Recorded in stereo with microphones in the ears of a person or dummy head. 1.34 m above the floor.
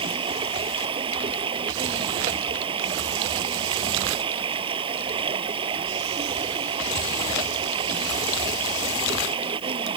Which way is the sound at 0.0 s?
30° right (ahead or behind).